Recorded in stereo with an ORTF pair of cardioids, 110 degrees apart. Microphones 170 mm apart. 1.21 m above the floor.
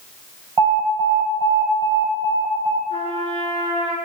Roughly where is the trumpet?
Ahead right.